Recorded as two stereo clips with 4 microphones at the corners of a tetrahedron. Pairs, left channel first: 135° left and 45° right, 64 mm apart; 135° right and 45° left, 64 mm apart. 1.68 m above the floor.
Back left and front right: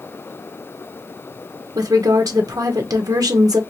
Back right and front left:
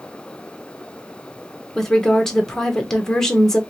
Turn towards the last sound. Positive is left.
turn(degrees=-50)